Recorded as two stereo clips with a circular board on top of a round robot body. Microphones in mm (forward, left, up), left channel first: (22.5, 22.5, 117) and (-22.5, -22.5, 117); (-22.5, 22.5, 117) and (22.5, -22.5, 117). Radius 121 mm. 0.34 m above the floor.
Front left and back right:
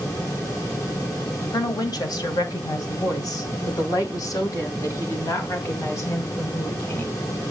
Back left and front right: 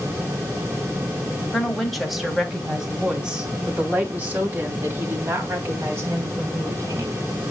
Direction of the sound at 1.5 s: 50° left.